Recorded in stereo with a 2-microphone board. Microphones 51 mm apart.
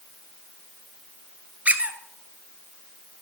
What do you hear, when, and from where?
1.6 s a squeak: 30° right (ahead or behind), 0.8 m